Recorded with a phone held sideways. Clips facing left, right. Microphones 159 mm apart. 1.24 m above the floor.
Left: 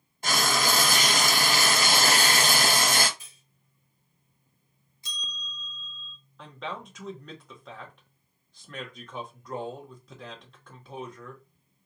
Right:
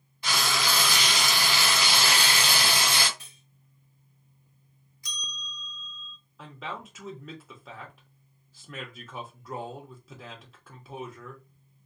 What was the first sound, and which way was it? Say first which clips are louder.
Frying: left 3 dB; 45° left (ahead or behind).